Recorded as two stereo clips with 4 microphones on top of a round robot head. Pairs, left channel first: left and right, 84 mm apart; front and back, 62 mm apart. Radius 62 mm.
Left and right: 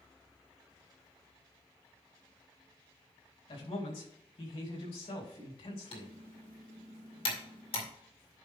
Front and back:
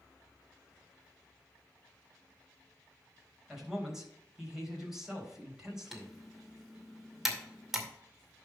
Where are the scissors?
I don't hear scissors.